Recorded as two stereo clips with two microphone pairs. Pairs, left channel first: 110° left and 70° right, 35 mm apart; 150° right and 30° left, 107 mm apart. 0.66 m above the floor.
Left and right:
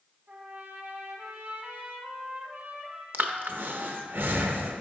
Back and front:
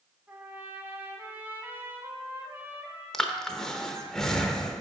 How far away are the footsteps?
No footsteps in this recording.